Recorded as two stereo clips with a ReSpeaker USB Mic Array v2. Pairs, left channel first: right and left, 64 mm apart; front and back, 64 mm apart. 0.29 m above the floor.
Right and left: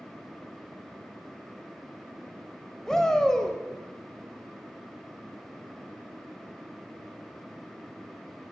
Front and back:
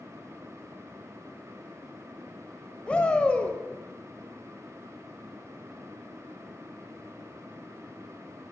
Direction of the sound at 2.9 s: 25° right.